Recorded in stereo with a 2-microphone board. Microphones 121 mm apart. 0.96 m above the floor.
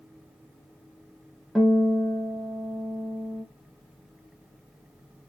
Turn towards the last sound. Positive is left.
turn(degrees=0)  # may be behind; listen again after turning